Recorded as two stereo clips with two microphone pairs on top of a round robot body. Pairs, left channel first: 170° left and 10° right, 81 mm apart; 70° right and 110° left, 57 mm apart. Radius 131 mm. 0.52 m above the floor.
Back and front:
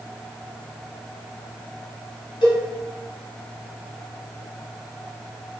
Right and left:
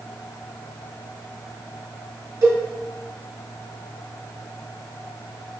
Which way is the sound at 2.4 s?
135° left.